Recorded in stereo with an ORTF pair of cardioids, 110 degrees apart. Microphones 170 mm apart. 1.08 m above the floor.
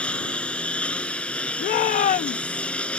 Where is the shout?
55° left.